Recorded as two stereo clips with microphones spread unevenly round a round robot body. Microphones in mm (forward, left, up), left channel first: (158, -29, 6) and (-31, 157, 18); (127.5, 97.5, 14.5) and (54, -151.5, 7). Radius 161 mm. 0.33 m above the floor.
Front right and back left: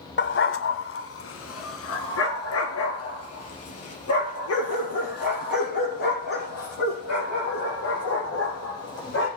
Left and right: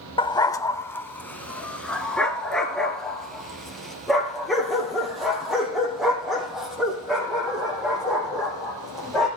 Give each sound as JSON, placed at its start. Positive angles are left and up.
{"t": 0.2, "sound": "a dog barking", "azimuth_deg": 0, "distance_m": 0.8}